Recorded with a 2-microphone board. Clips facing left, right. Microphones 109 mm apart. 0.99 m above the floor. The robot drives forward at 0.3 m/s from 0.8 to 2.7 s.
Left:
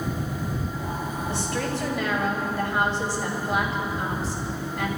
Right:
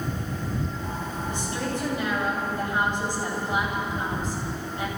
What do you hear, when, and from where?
1.3 s a woman speaking: 80° left, 6 m